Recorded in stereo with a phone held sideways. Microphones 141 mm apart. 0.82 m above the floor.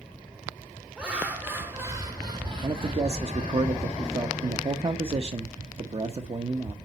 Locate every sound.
1.0 s laughter: 5° right (ahead or behind), 3 m; by 3.6 s 50° right (ahead or behind), 2.5 m
2.6 s a man speaking: 40° right (ahead or behind), 0.9 m